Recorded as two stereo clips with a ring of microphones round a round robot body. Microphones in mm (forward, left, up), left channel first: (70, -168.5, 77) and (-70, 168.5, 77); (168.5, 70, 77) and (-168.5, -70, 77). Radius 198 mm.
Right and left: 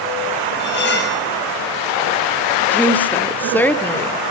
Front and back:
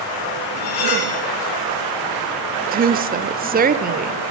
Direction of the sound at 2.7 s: 145° right.